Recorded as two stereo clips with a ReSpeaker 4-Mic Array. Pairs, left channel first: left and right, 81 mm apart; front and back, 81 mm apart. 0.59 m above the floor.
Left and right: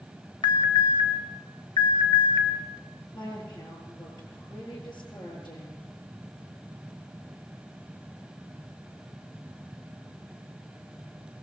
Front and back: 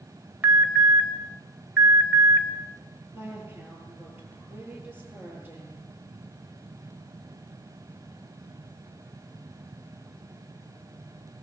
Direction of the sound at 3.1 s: 115° left.